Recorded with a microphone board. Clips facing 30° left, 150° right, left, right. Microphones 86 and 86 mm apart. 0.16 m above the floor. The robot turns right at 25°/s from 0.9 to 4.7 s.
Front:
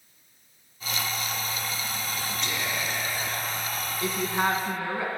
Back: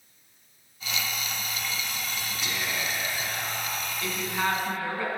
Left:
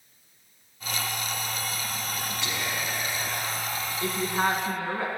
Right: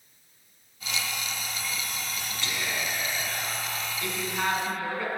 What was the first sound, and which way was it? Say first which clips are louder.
Whispering: back 1 dB, right 2 dB; 130° left.